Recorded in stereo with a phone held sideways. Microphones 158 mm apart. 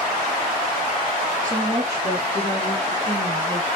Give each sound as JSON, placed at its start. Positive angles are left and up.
{"t": 1.4, "sound": "a woman speaking", "side_deg": -55, "distance_m": 0.9}